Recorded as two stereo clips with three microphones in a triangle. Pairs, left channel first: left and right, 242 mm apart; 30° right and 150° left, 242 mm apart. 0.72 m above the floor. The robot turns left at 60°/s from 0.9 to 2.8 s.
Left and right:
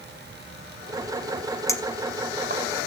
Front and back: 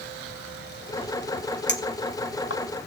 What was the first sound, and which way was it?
A clink, 15° left.